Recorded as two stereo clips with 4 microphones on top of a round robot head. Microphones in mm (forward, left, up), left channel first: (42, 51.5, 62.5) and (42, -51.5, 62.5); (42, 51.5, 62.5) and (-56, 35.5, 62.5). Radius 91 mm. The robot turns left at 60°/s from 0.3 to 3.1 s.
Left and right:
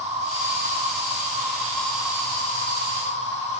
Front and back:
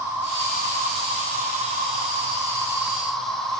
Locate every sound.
0.0 s an insect: 95° right, 4.5 m; by 3.6 s 95° left, 4.5 m